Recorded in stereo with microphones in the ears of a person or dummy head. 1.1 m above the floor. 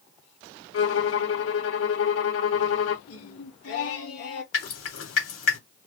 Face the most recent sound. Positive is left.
turn(degrees=75)  # may be behind; listen again after turning